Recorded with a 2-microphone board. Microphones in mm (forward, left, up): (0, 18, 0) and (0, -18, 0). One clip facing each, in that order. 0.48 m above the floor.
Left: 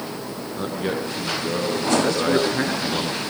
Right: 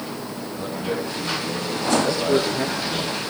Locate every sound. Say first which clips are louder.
0.6 s a man speaking: left 1 dB; 55° left (ahead or behind), 7.5 m
2.0 s a man speaking: left 1 dB; 60° left (ahead or behind), 7 m